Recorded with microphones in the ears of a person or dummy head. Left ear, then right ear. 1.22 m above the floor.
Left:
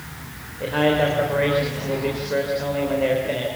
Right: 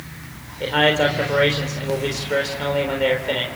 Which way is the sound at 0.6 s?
90° right.